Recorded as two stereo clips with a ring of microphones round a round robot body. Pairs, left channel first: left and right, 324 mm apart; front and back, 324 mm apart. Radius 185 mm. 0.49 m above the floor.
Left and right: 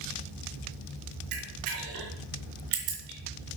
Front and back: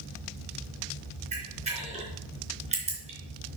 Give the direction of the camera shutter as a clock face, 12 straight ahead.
4 o'clock.